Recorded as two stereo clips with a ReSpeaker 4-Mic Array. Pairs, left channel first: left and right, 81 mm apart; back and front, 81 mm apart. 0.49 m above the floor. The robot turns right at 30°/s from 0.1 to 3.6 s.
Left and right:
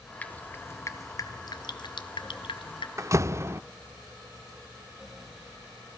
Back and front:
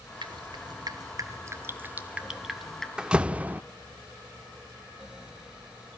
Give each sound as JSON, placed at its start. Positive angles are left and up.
{"t": 0.2, "sound": "dripping", "azimuth_deg": 15, "distance_m": 1.8}
{"t": 3.0, "sound": "a door slam", "azimuth_deg": -75, "distance_m": 0.6}